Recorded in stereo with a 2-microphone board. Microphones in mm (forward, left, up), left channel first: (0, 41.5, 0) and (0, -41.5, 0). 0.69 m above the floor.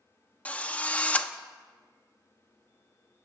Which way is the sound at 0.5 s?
20° left (ahead or behind).